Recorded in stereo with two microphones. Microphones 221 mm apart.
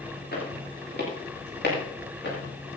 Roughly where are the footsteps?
Left.